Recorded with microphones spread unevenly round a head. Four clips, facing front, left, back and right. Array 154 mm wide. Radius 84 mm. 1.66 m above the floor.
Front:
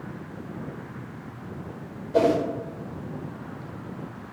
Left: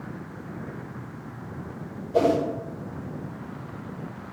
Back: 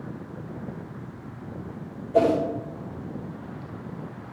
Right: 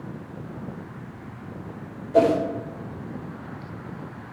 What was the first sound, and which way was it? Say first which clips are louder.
A whoosh: right 3 dB, even; 25° right.